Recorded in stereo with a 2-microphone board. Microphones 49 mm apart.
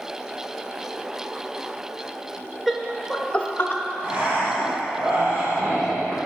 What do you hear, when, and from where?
2.7 s laughter: 5° right (ahead or behind), 1.0 m; by 3.8 s 45° left (ahead or behind), 0.9 m
4.0 s breathing: 45° right (ahead or behind), 2.5 m